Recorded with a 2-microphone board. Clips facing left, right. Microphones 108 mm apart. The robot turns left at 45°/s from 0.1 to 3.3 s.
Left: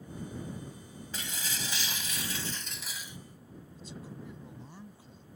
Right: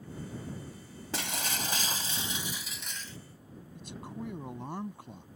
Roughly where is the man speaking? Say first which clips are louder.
Right 4 dB; right.